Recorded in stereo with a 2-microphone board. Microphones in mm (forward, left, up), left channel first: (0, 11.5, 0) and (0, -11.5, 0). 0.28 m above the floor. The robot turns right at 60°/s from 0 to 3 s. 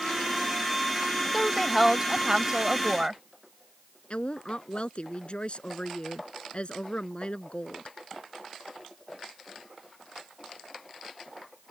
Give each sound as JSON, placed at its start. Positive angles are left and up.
{"t": 1.3, "sound": "a woman speaking", "azimuth_deg": 165}
{"t": 4.1, "sound": "a woman speaking", "side_deg": 50}